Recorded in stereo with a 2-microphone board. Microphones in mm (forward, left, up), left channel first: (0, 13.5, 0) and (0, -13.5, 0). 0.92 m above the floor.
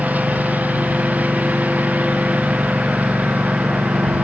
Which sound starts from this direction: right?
A lawn mower, at 0.0 s.